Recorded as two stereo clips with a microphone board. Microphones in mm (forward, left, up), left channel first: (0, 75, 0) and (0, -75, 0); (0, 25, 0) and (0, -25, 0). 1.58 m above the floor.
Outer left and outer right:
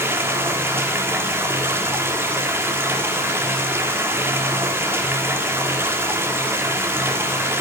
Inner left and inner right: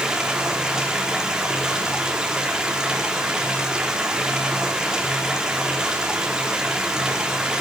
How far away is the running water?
About 4 m.